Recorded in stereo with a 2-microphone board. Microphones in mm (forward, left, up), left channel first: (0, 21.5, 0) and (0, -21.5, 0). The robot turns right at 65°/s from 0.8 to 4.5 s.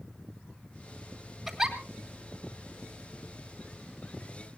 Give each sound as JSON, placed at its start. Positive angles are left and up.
{"t": 1.5, "sound": "a giggle", "side_deg": 0, "distance_m": 2.5}